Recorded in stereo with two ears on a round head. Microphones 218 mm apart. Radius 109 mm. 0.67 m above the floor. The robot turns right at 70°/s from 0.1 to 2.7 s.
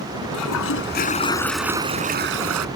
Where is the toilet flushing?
95° left; by 2.7 s 105° right.